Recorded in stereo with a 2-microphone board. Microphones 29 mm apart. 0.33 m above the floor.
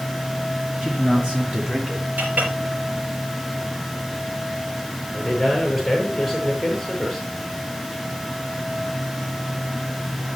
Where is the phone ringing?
I don't hear a phone ringing.